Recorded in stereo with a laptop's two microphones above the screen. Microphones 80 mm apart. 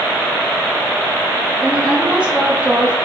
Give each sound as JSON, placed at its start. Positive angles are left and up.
{"t": 1.6, "sound": "a woman speaking", "side_deg": -15, "distance_m": 2.5}